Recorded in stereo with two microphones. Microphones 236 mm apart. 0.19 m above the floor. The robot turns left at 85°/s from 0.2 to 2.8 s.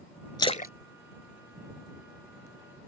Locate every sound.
0.4 s a splash: 15° left (ahead or behind); by 2.5 s 15° right (ahead or behind)